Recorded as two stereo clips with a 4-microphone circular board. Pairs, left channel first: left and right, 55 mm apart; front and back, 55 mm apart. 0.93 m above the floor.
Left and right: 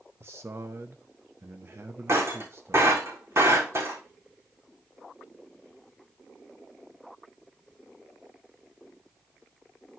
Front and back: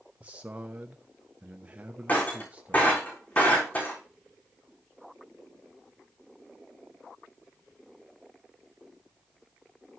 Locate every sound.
0.2 s a man speaking: 120° right, 0.8 m
2.1 s breaking glass: 55° right, 3.5 m